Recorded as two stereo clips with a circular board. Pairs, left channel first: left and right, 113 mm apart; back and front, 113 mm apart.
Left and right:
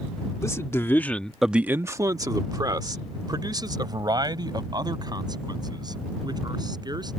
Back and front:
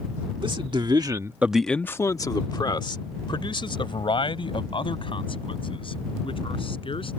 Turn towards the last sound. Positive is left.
turn(degrees=-145)